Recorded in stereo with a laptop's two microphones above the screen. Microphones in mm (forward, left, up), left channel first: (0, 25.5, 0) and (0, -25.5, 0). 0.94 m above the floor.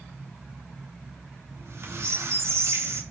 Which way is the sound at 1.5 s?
55° right (ahead or behind).